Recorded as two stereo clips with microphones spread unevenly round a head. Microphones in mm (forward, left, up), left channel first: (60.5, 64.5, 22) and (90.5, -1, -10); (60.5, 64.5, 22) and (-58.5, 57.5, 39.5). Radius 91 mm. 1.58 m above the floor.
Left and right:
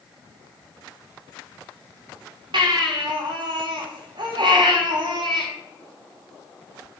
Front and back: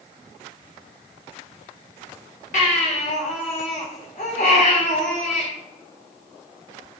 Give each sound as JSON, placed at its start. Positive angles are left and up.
{"t": 2.5, "sound": "a baby crying", "azimuth_deg": -45, "distance_m": 2.5}